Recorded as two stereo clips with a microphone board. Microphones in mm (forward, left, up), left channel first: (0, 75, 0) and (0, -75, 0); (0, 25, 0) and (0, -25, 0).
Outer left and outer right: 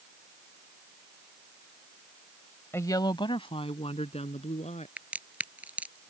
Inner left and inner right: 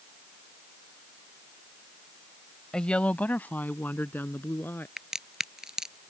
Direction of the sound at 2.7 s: 15° left (ahead or behind).